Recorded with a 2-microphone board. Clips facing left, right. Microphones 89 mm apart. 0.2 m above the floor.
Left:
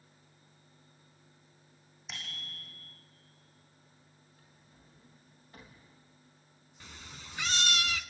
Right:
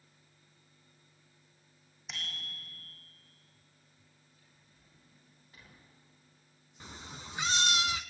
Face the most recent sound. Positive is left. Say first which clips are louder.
# right 4 dB
turn(degrees=-25)  # may be behind; listen again after turning